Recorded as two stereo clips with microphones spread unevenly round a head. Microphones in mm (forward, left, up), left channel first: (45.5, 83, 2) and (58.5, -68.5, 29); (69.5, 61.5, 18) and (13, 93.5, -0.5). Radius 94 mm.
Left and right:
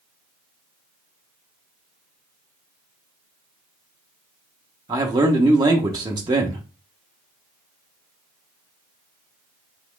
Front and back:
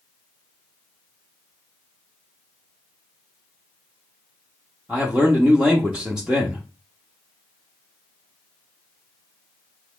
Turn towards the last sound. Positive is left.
turn(degrees=-115)